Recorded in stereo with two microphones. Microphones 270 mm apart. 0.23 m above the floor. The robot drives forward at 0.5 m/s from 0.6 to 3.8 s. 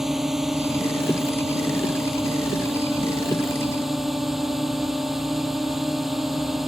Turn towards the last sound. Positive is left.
turn(degrees=0)  # may be behind; listen again after turning